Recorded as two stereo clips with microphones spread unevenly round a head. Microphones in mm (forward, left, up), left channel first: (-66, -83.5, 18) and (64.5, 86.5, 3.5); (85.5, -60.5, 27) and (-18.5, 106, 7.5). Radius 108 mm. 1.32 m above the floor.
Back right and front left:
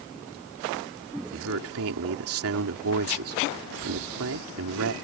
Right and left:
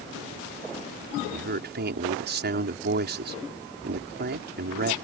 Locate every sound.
1.3 s a man speaking: 80° left